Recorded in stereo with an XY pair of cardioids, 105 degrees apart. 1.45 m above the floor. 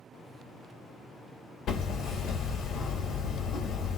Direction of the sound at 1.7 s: 65° left.